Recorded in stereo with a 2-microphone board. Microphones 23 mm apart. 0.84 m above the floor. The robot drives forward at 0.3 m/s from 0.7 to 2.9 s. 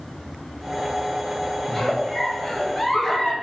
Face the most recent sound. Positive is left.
turn(degrees=20)  # may be behind; listen again after turning